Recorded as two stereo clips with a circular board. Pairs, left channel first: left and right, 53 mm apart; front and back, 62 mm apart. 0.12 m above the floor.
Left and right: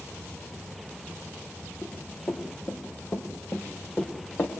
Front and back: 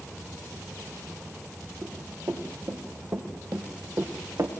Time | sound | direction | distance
1.8 | running footsteps | 135° left | 8.5 m